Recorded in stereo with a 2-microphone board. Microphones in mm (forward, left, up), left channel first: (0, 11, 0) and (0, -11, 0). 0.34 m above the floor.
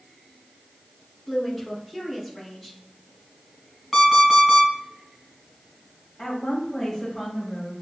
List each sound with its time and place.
1.3 s a woman speaking: 10° left (ahead or behind), 2.5 m
3.9 s an alarm clock: 5° left (ahead or behind), 1.7 m
6.2 s a woman speaking: 15° left (ahead or behind), 1.6 m